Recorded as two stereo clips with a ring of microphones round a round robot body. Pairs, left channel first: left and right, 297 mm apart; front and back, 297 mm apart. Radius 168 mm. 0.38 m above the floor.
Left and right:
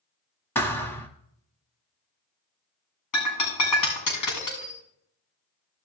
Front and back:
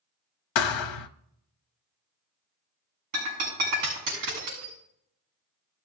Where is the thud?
5° left, 0.9 m.